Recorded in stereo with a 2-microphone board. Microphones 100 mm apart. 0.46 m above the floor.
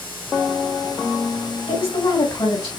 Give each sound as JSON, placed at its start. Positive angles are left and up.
{"t": 1.7, "sound": "a woman speaking", "side_deg": 65, "distance_m": 2.5}